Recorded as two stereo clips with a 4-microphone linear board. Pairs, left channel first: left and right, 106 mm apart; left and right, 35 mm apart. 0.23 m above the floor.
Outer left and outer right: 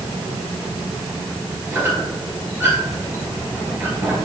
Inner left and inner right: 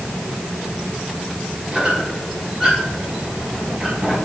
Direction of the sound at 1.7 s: 20° right (ahead or behind).